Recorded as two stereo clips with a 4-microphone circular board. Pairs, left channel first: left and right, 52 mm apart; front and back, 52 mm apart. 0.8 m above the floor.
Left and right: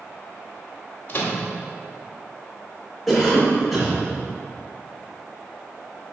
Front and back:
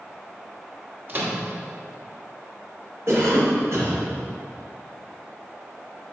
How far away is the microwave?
About 1.0 m.